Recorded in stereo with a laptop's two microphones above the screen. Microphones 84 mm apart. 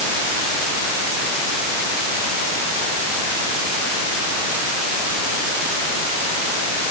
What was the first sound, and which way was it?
Only background noise.